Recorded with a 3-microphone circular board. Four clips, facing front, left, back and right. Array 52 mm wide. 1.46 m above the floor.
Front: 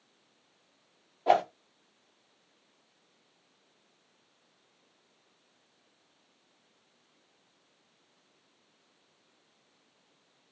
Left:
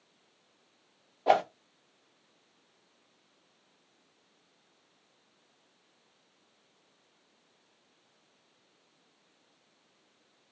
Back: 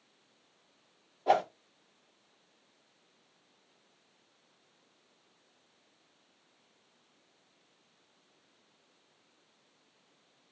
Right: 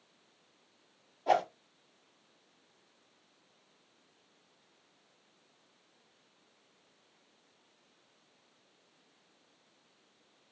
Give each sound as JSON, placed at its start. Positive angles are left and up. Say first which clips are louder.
{"t": 1.3, "sound": "a whoosh", "louder": "left 3 dB, front 2 dB", "azimuth_deg": 70, "distance_m": 0.9}